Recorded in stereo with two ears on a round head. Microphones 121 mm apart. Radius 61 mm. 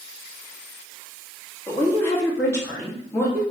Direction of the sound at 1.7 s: 15° left (ahead or behind).